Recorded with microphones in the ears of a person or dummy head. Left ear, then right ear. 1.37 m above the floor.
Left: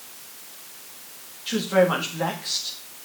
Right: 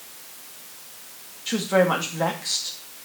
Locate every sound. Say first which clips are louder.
1.5 s a woman speaking: even; 20° right (ahead or behind), 1.9 m